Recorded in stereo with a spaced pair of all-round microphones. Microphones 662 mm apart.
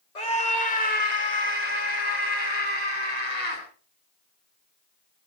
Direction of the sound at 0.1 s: 80° left.